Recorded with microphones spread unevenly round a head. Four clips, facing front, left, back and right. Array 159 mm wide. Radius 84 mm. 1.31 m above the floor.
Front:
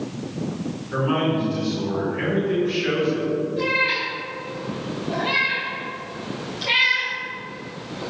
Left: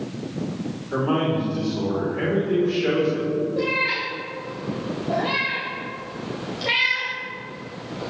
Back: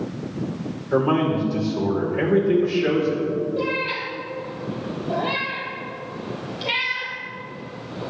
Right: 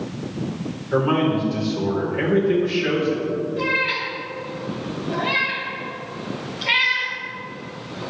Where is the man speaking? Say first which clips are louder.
Right 3 dB, back 3 dB; straight behind, 4.5 m.